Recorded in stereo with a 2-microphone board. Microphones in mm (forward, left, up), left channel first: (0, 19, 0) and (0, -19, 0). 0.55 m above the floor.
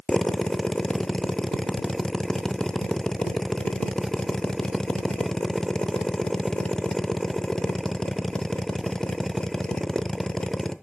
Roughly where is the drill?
Centre.